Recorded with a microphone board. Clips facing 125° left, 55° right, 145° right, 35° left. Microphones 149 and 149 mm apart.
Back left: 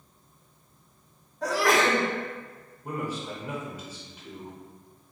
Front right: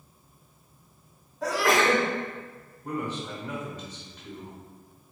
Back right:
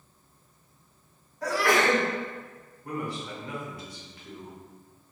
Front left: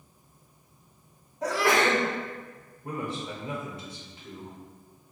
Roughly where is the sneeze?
Ahead left.